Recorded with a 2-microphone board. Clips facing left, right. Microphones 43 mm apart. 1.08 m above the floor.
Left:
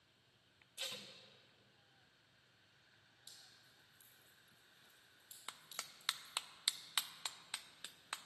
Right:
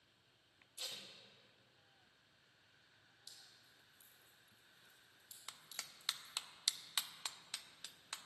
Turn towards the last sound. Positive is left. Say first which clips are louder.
# left 2 dB
turn(degrees=20)  # may be behind; listen again after turning